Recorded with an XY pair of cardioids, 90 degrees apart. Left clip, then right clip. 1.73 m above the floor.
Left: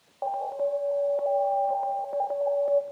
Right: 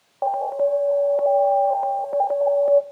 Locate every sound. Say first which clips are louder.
0.2 s an alarm: right 7 dB; 50° right, 0.7 m